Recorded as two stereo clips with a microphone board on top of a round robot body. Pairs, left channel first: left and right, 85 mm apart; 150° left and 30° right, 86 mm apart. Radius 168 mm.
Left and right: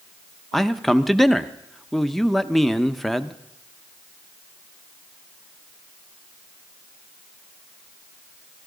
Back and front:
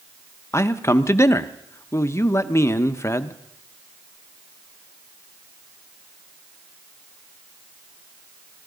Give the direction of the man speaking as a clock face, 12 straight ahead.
6 o'clock.